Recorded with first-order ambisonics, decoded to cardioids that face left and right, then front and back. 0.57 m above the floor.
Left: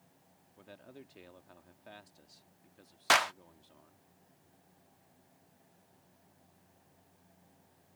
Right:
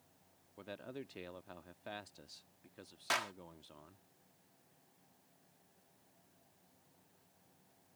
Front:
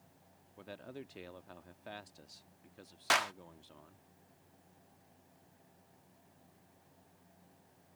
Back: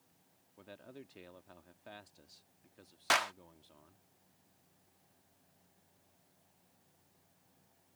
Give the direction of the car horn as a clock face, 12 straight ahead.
I don't hear a car horn.